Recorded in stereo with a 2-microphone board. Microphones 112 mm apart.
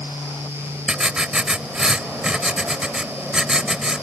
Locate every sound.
0.9 s writing: 10° right (ahead or behind)